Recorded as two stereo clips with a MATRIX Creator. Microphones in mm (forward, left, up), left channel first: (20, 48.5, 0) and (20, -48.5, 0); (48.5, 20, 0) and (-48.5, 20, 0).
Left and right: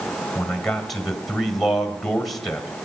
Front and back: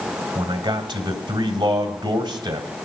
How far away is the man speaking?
About 1.8 m.